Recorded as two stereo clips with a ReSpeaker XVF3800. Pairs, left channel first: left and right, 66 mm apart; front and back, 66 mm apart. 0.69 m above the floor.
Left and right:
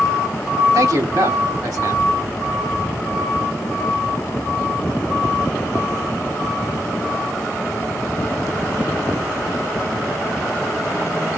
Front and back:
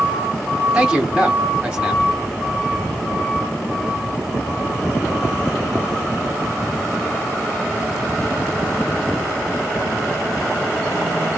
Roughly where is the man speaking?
Right.